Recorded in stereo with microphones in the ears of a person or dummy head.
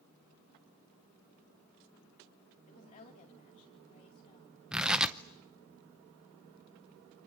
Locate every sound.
2.7 s a woman speaking: 45° left (ahead or behind), 4.5 m; by 4.6 s 35° left (ahead or behind), 6 m
4.7 s tearing paper: centre (ahead or behind), 0.7 m